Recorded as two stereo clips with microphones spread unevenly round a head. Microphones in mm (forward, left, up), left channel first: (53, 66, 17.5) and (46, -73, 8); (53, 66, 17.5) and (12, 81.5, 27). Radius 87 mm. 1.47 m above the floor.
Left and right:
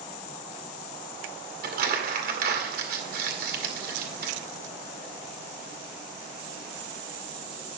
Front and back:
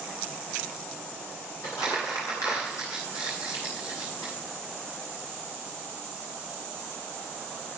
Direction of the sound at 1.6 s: 80° right.